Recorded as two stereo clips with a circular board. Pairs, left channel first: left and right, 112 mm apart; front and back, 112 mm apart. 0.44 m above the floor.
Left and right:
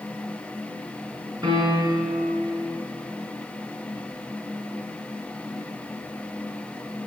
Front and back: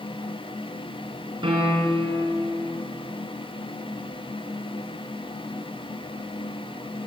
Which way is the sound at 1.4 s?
140° right.